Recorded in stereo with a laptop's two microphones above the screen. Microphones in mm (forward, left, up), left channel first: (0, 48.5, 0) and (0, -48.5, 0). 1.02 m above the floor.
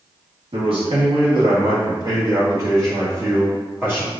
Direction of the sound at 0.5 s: 70° right (ahead or behind).